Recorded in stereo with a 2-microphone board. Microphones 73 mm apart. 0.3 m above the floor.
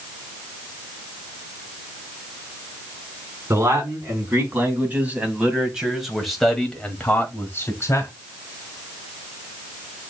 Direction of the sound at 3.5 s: 35° right (ahead or behind).